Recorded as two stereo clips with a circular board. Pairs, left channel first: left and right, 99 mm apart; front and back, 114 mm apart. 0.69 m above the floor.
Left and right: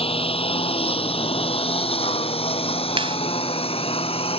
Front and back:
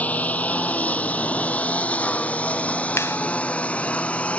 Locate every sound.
0.0 s a lawn mower: 75° left; by 4.4 s 80° left
3.0 s a clap: 65° right